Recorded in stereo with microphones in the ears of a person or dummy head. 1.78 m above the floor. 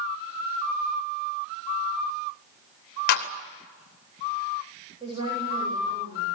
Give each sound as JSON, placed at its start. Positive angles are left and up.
{"t": 3.1, "sound": "a clap", "side_deg": 55, "distance_m": 2.5}
{"t": 5.0, "sound": "a woman speaking", "side_deg": -25, "distance_m": 8.5}